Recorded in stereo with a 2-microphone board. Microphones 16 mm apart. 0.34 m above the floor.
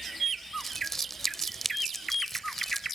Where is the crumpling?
25° left (ahead or behind).